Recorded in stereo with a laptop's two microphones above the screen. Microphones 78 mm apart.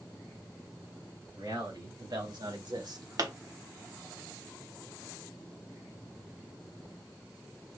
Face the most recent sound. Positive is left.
turn(degrees=-55)  # may be behind; listen again after turning